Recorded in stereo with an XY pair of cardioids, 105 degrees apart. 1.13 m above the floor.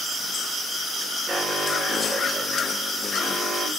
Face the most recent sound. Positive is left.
turn(degrees=-10)